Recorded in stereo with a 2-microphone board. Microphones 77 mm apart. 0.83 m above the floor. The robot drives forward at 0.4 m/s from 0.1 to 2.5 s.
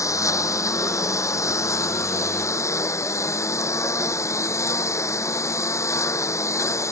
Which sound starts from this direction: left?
A lawn mower, at 0.0 s.